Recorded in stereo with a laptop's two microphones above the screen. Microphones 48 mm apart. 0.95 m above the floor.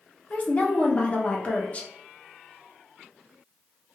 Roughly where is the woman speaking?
Left.